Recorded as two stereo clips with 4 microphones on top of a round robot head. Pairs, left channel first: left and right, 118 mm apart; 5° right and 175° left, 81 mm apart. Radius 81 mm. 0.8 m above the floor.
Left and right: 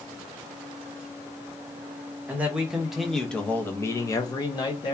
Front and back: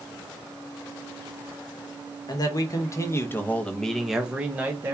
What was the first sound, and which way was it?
A man speaking, 15° right.